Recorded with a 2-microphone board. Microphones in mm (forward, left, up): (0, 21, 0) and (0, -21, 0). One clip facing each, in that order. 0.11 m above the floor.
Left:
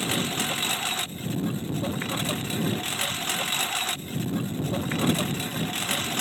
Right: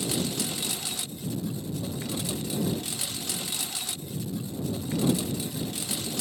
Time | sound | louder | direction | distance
0.0 | a lawn mower | left 3 dB | 45° left (ahead or behind) | ?